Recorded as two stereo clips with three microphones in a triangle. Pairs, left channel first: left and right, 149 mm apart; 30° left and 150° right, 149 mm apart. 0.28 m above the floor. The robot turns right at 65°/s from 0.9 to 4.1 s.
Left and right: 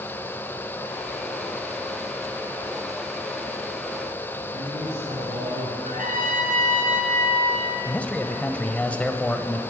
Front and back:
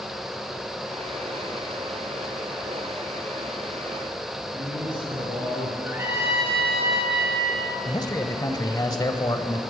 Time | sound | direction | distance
4.5 | a man speaking | 85° right | 5 m
5.8 | a trumpet | 75° right | 2.5 m
7.8 | a man speaking | 20° left | 0.9 m